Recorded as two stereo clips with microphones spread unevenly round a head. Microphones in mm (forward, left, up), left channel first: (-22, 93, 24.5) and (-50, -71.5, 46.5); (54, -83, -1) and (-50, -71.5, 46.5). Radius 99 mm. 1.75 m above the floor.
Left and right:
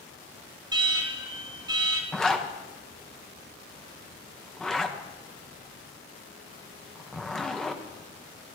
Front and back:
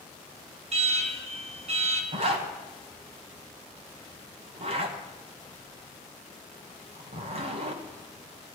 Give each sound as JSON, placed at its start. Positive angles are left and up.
{"t": 0.7, "sound": "an alarm", "azimuth_deg": -165, "distance_m": 1.6}
{"t": 2.1, "sound": "a zipper", "azimuth_deg": 170, "distance_m": 1.2}